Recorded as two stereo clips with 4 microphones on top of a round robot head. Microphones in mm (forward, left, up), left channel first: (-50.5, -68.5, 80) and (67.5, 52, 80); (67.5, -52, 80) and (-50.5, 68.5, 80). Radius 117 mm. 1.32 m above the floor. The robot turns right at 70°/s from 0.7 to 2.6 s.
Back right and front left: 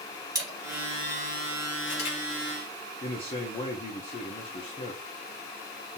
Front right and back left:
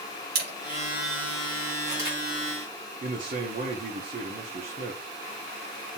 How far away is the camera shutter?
About 2 m.